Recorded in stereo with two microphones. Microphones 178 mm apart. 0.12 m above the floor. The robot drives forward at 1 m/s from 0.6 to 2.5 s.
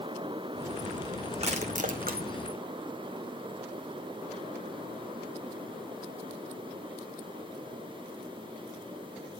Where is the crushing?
35° right (ahead or behind), 1.9 m; by 2.2 s 60° right (ahead or behind), 1.3 m.